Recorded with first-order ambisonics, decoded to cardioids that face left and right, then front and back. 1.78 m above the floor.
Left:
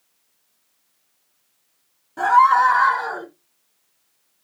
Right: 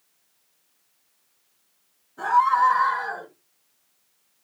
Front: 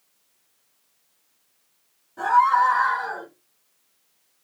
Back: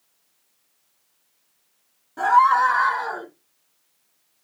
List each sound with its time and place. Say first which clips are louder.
2.2 s a scream: left 5 dB, back 2 dB; 120° left, 5 m; by 3.3 s 125° left, 5.5 m